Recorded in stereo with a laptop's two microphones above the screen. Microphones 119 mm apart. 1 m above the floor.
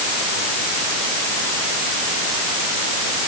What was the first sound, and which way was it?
Only background noise.